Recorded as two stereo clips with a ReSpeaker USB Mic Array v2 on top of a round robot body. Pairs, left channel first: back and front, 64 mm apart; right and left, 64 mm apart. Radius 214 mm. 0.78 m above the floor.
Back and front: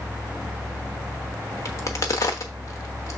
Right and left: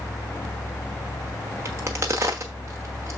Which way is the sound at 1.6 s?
140° left.